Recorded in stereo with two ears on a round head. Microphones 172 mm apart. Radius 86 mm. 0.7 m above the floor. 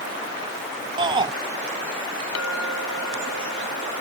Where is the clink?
85° left.